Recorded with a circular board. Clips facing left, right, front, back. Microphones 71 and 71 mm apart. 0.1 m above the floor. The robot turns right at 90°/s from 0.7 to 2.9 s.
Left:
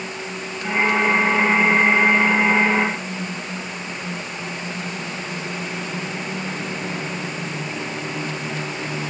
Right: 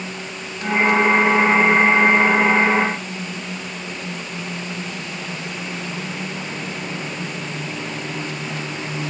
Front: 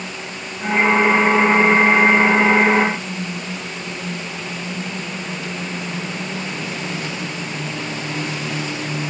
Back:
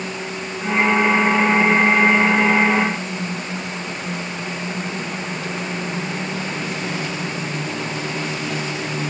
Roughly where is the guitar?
I don't hear a guitar.